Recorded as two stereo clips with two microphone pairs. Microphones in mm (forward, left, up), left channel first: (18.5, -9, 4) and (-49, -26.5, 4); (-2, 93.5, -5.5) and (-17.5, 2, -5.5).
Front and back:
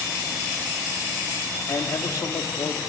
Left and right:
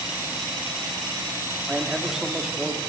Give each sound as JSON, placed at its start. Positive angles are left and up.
{"t": 1.7, "sound": "a man speaking", "azimuth_deg": -15, "distance_m": 1.7}